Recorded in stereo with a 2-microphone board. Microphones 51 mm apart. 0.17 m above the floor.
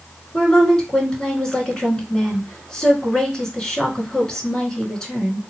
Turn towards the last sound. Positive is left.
turn(degrees=15)  # may be behind; listen again after turning